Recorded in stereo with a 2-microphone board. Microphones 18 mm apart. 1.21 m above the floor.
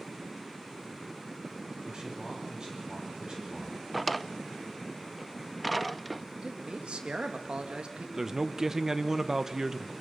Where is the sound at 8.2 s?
25° right (ahead or behind), 1.1 m.